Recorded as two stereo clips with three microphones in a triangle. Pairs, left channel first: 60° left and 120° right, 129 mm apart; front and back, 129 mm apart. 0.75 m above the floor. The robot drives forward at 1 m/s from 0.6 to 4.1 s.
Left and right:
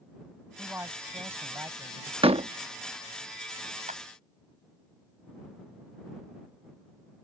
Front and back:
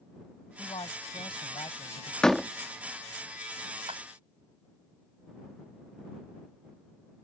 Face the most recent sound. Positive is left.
turn(degrees=-140)